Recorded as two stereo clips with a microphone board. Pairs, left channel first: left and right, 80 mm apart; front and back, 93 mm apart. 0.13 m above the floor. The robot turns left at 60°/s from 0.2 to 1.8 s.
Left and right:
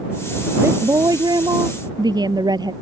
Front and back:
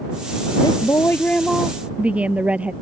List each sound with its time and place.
0.6 s a woman speaking: 35° right; by 2.7 s 105° right